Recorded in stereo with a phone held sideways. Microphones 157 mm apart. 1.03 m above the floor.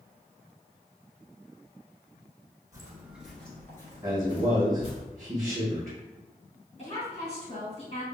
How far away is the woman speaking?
About 1.7 m.